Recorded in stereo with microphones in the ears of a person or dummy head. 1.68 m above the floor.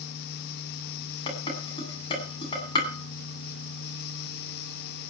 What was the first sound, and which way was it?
Dishes clattering, 25° left (ahead or behind).